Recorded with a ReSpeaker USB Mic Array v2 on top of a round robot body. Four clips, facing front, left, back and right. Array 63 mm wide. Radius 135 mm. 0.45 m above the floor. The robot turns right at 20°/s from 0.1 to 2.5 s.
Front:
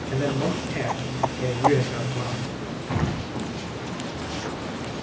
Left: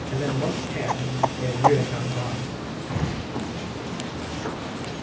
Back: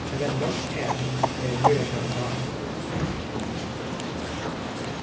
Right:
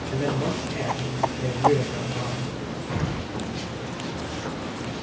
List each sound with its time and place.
0.1 s a man speaking: 5° right, 8 m; by 2.5 s 40° left, 8 m
2.9 s an explosion: 10° left, 3.5 m